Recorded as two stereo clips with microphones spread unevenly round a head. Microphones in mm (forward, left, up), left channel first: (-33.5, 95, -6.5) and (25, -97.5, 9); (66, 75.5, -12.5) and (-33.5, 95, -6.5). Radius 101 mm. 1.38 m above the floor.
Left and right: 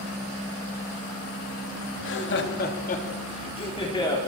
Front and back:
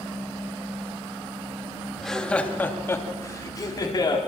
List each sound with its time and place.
2.0 s laughter: 75° left, 2.5 m; by 4.2 s 35° left, 3.5 m